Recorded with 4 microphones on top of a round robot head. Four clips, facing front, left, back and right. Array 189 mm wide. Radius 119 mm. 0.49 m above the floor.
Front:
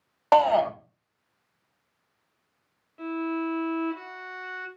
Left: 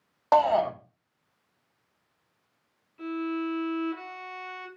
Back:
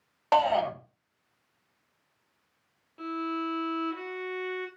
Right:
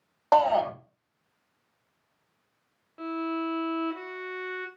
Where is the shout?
Straight ahead, 0.8 m.